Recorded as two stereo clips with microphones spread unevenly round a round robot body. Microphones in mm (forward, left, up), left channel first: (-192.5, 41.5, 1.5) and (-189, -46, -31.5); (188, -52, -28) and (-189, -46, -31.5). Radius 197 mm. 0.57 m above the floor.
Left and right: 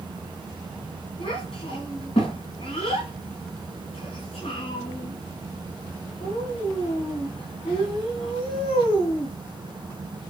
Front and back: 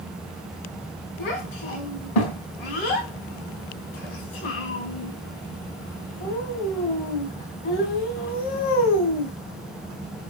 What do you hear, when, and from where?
1.2 s a child speaking: 20° left, 4 m